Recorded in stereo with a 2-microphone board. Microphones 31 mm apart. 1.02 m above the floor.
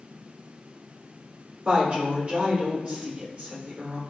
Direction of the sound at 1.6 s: 40° right (ahead or behind).